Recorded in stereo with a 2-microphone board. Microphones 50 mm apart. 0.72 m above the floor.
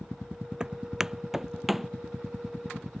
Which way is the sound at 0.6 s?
15° right (ahead or behind).